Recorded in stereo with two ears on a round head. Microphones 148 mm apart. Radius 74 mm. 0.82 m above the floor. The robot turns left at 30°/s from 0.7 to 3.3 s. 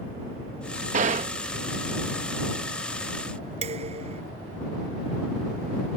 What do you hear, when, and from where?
0.9 s a gunshot: 45° right (ahead or behind); by 1.3 s 40° right (ahead or behind)
3.6 s dishes clattering: 40° right (ahead or behind)